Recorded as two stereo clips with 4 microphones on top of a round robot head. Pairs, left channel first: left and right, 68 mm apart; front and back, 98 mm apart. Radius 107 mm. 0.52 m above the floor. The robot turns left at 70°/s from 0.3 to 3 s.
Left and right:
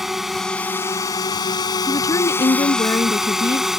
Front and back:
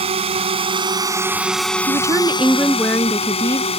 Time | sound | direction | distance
0.0 | a drone | 175° right | ?
1.9 | a woman speaking | 145° left | ?